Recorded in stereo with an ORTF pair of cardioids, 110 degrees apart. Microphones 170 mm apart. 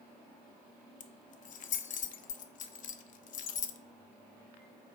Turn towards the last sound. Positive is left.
turn(degrees=50)